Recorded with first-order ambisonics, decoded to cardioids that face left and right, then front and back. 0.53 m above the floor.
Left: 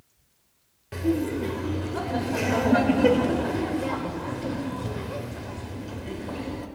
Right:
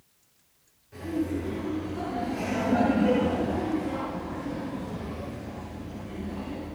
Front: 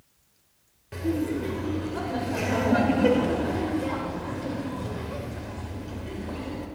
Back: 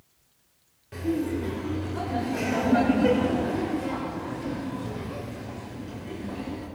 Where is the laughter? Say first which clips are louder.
Left 4 dB, even; 80° left, 2.5 m.